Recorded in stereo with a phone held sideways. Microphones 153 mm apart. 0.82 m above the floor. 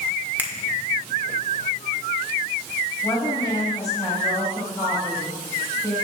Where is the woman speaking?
25° left (ahead or behind), 5.5 m.